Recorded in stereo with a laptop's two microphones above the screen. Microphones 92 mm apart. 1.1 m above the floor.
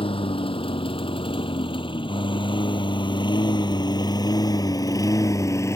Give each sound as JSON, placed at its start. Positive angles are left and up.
{"t": 0.0, "sound": "a lawn mower", "side_deg": 70}